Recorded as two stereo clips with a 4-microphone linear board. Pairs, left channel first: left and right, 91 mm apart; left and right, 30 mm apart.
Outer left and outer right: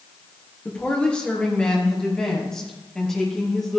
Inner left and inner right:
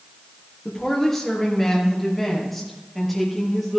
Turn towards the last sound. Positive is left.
turn(degrees=5)  # may be behind; listen again after turning